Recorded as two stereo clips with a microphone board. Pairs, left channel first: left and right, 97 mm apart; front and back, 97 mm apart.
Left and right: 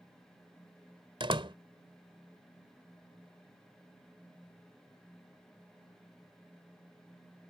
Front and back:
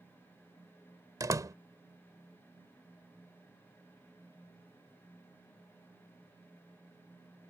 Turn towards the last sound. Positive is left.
turn(degrees=-125)